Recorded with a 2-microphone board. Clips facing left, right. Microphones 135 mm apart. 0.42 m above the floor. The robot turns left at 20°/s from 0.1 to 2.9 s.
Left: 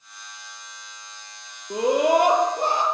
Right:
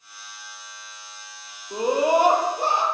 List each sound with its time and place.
1.7 s a scream: 70° left (ahead or behind), 8.5 m; by 2.8 s 45° left (ahead or behind), 8.5 m